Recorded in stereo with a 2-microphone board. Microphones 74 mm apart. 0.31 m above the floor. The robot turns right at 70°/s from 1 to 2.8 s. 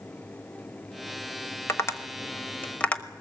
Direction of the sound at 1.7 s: 35° left (ahead or behind).